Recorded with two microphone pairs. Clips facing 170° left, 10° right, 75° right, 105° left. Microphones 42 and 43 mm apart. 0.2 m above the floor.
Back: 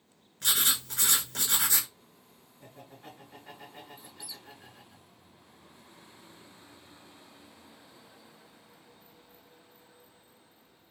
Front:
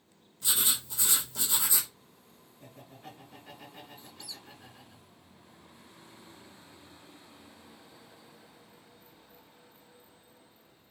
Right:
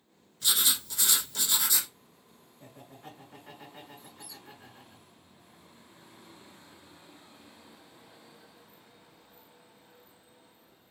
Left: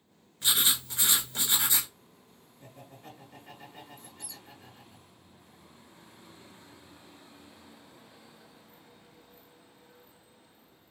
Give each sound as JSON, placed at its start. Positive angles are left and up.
{"t": 0.4, "sound": "writing", "azimuth_deg": 165, "distance_m": 0.8}
{"t": 2.6, "sound": "laughter", "azimuth_deg": -110, "distance_m": 1.9}
{"t": 4.0, "sound": "a squeak", "azimuth_deg": 95, "distance_m": 0.5}